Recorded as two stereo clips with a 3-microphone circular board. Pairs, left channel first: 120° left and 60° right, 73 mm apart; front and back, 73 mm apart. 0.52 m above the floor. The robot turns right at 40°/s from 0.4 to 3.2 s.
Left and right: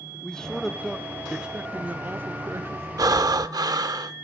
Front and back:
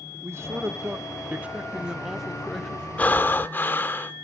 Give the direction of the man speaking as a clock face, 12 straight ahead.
6 o'clock.